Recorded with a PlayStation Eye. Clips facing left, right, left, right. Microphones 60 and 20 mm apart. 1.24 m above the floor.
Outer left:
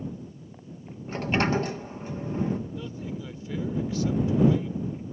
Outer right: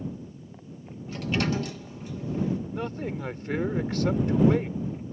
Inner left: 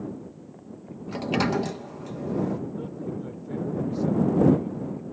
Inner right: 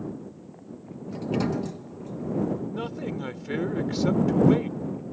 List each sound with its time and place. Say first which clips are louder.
1.1 s a sliding door: outer left 3 dB, inner left 2 dB; 40° left (ahead or behind)
2.7 s a man speaking: outer right 4 dB, inner right 2 dB; 65° right (ahead or behind)